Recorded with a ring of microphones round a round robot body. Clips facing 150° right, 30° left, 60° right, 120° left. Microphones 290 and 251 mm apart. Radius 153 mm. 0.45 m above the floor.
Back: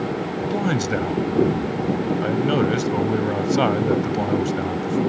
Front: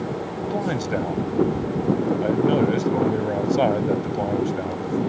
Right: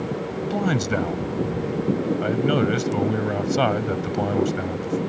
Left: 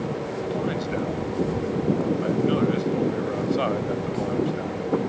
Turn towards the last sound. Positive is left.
turn(degrees=-85)